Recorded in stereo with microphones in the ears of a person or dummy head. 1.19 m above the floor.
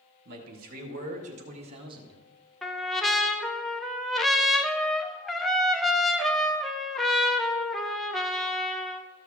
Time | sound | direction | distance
0.2 | a man speaking | 55° right (ahead or behind) | 2.5 m
2.6 | a trumpet | 5° left (ahead or behind) | 0.5 m